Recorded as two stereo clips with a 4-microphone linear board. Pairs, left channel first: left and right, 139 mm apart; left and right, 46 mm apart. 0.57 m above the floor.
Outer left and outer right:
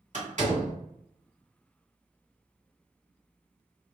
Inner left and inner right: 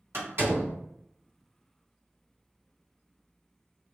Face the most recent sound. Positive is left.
turn(degrees=-60)  # may be behind; listen again after turning